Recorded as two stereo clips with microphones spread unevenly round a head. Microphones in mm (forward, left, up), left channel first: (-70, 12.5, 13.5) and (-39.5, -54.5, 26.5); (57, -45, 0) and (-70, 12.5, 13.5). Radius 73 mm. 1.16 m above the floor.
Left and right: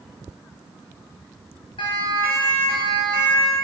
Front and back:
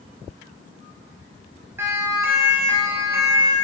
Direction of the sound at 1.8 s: 80° left.